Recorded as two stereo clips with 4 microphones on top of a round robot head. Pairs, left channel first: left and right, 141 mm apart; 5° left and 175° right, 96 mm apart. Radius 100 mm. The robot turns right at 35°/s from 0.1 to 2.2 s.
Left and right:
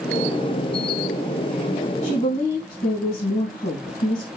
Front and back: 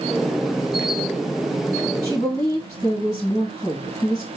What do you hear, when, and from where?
2.0 s a woman speaking: 55° left, 3.5 m; by 4.3 s 60° left, 3.5 m